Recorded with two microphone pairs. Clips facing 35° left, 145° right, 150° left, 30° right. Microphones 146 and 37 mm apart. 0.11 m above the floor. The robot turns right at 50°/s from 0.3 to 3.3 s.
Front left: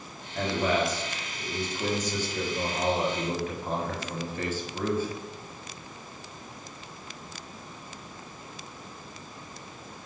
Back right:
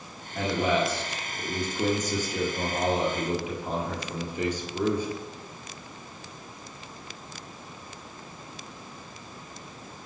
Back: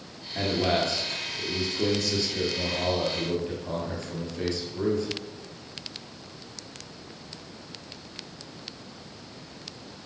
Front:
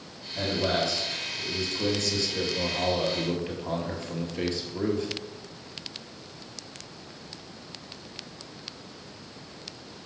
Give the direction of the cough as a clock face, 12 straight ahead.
No cough in this recording.